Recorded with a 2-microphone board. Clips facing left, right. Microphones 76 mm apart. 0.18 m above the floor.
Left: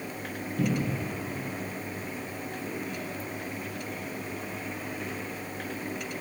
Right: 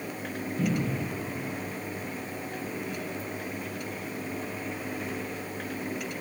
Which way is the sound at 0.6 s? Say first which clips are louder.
Even; 70° left (ahead or behind).